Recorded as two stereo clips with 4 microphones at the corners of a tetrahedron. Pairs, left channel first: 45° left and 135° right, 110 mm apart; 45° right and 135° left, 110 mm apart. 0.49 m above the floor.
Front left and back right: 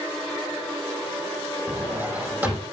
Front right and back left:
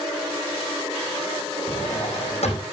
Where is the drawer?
60° right, 4.5 m.